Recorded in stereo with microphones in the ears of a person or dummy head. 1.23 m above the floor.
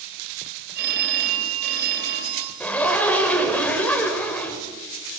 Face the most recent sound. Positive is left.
turn(degrees=5)  # may be behind; listen again after turning